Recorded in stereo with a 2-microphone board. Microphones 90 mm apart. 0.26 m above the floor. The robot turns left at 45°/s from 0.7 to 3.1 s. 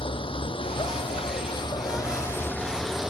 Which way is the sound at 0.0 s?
100° left.